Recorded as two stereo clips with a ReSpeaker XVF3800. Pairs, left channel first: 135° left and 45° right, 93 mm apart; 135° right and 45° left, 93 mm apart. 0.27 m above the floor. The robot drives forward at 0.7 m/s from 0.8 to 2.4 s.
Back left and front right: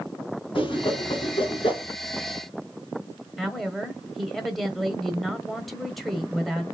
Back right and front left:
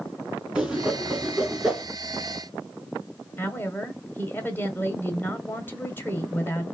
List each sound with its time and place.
0.6 s a whoosh: 125° left, 3 m; by 1.9 s 135° left, 3.5 m
3.4 s a woman speaking: 140° right, 1.3 m